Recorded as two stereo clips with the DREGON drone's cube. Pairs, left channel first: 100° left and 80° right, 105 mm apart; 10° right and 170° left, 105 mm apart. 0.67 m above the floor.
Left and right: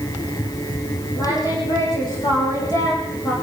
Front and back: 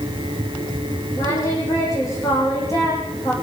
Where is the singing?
50° left, 9 m.